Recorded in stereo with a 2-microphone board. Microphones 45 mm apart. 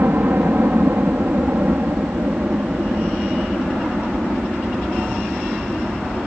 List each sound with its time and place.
0.0 s a helicopter: 50° right (ahead or behind); by 6.3 s 35° right (ahead or behind)